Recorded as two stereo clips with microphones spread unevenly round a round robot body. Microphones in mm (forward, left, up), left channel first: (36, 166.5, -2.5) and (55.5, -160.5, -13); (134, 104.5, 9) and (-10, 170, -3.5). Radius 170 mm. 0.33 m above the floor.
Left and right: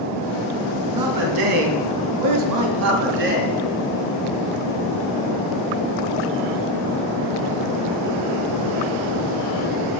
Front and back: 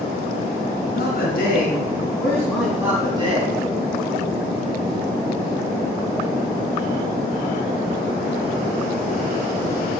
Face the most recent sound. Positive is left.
turn(degrees=-150)